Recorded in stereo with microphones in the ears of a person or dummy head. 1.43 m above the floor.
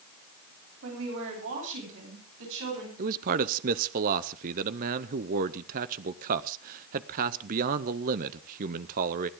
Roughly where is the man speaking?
Right.